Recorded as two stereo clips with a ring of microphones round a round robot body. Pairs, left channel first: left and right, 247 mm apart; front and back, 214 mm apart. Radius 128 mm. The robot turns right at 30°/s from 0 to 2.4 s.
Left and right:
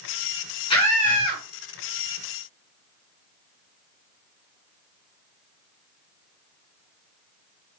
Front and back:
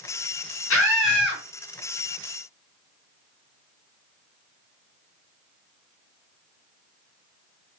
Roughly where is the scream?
Ahead.